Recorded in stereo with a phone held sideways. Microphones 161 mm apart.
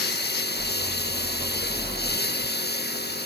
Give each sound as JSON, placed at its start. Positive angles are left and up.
{"t": 0.0, "sound": "a lawn mower", "side_deg": 80}